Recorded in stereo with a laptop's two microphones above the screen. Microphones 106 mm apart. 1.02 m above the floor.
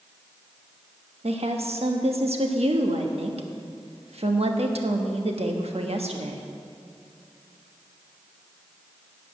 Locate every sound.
1.2 s a woman speaking: 70° right (ahead or behind), 1.2 m